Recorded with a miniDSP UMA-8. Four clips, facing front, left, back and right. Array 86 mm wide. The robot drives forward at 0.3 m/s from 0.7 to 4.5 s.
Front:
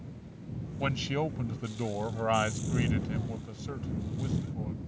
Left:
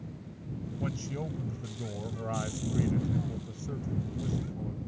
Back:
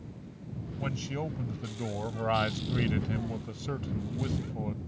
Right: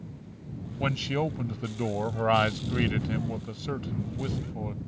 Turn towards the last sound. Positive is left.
turn(degrees=-120)